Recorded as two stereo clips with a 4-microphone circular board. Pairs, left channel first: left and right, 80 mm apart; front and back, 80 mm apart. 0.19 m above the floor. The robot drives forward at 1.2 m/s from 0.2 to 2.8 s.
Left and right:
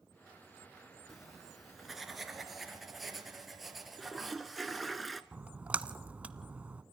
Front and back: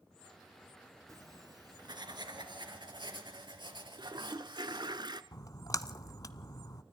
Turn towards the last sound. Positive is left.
turn(degrees=-20)